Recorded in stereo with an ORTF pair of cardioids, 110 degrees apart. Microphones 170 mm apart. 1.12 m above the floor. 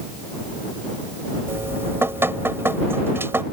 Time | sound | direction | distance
1.5 | dripping | 15° right | ?